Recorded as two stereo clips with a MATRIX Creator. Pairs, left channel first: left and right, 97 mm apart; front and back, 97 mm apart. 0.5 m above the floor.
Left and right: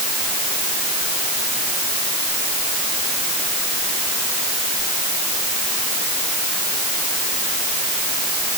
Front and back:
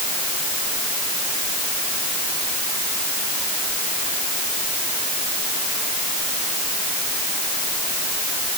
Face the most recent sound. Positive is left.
No sound to turn to.